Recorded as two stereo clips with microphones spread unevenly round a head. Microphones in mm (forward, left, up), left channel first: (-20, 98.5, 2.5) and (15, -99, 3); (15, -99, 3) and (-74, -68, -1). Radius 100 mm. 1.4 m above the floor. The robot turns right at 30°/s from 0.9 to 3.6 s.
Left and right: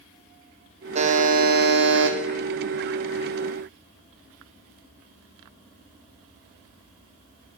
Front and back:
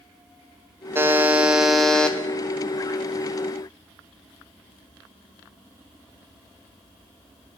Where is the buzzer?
135° right, 0.6 m; by 2.2 s 100° right, 0.6 m.